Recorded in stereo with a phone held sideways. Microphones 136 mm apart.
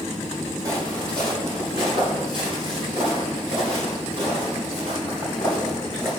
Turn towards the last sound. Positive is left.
turn(degrees=-55)  # may be behind; listen again after turning